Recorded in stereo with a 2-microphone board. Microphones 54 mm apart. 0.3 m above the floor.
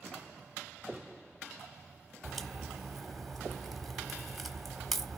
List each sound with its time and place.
2.2 s a crack: centre (ahead or behind), 1.2 m